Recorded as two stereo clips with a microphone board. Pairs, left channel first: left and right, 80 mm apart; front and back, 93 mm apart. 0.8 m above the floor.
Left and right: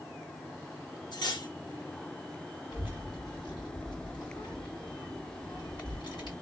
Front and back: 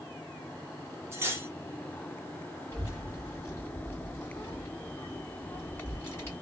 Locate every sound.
1.1 s cutlery clinking: 115° left, 0.7 m
2.7 s a child speaking: 65° left, 2.0 m